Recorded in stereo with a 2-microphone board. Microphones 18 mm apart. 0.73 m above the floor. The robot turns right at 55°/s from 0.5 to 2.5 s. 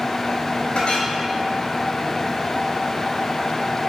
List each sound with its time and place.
0.8 s a clink: 75° left (ahead or behind), 2 m; by 1.1 s 80° left, 2 m